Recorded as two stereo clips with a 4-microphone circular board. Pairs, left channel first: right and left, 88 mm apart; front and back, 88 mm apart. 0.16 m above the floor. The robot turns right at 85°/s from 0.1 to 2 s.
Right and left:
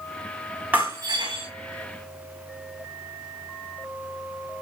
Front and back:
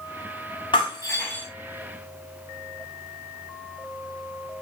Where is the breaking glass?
20° left, 4.5 m; by 1.4 s 80° left, 4.5 m.